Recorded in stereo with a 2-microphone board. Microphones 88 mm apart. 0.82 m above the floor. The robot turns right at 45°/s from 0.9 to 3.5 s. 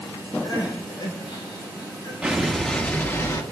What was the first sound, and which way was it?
Crying, 60° left.